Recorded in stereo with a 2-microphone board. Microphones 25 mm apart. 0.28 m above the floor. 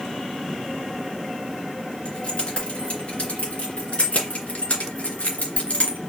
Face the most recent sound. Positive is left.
turn(degrees=65)  # may be behind; listen again after turning